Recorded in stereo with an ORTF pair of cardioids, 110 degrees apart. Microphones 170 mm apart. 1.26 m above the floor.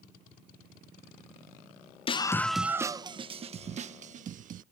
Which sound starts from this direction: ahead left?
A scream, at 2.1 s.